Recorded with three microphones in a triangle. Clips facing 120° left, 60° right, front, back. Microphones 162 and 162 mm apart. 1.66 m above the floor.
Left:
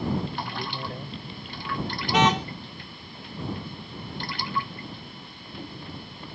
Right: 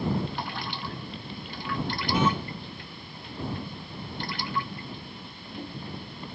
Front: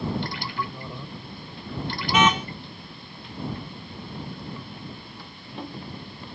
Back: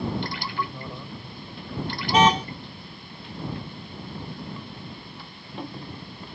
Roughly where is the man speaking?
Left.